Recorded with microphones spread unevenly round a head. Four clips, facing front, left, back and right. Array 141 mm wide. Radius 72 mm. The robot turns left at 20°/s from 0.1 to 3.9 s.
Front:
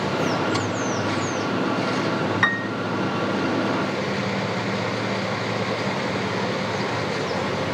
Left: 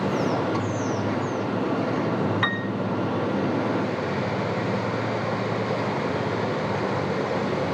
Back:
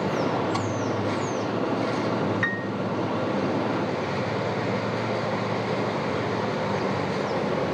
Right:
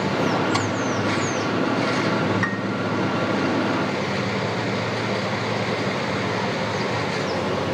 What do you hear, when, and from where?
2.4 s a piano: 20° left; by 2.7 s 15° left